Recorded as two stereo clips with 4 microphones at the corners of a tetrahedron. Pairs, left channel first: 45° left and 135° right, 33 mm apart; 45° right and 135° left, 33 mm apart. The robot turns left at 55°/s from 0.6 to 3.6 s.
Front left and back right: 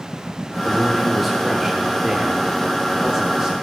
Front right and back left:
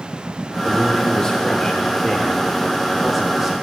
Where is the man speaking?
10° right, 0.9 m; by 3.5 s 170° right, 0.9 m.